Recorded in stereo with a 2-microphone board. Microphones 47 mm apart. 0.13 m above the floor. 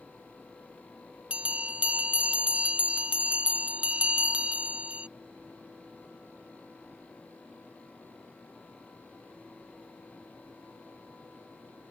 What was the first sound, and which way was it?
A bell, 25° right (ahead or behind).